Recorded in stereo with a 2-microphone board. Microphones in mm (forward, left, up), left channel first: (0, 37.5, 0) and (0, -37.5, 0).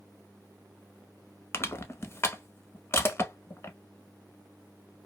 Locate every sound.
1.5 s crushing: 35° left (ahead or behind), 0.5 m